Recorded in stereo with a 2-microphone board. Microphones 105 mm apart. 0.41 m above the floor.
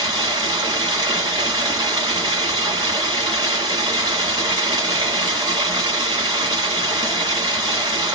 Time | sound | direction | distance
0.0 | running water | 45° right (ahead or behind) | 1.6 m